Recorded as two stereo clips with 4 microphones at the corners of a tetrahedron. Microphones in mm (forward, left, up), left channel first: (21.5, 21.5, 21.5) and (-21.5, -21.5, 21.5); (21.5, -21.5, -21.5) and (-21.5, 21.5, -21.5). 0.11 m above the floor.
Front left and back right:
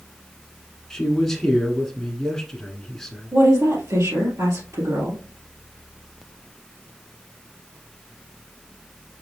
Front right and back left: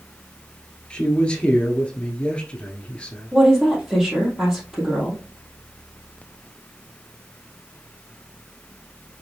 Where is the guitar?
I don't hear a guitar.